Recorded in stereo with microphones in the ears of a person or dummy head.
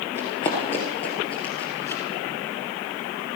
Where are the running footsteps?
15° left (ahead or behind), 2.0 m.